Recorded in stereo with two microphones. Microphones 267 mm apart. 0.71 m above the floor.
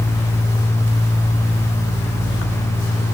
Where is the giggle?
No giggle in this recording.